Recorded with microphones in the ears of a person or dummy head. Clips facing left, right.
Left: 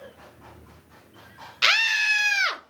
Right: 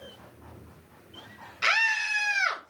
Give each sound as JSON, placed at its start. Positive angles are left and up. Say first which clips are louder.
{"t": 1.6, "sound": "a scream", "louder": "left 1 dB", "side_deg": 50, "distance_m": 0.9}